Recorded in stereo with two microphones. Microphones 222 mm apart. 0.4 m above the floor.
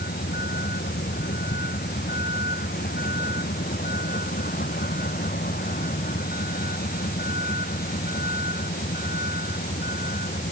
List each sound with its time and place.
0.0 s a vehicle: 45° left (ahead or behind); by 10.5 s 40° left (ahead or behind)